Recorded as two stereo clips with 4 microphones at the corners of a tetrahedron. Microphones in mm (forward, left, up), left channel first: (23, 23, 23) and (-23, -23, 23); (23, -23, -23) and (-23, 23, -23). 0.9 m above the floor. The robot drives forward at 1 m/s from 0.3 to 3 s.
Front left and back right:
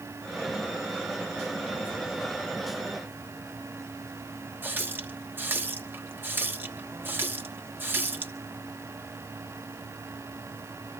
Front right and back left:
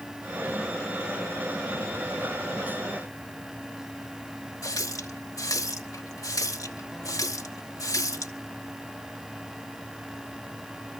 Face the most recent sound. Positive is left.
turn(degrees=-75)